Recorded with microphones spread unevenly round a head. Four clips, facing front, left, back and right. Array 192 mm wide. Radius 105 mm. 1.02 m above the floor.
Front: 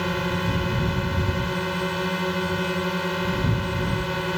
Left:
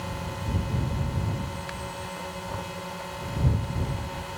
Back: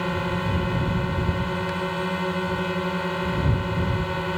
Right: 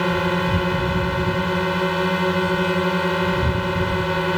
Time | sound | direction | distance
0.0 | a drone | 80° right | ?